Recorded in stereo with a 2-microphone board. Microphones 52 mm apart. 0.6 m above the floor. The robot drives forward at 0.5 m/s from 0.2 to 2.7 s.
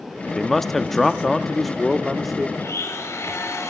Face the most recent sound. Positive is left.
turn(degrees=70)  # may be behind; listen again after turning